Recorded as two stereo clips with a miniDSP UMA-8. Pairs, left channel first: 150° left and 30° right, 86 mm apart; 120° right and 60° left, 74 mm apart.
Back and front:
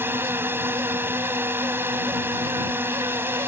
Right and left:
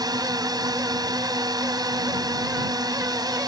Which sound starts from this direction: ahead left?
A drone, at 0.0 s.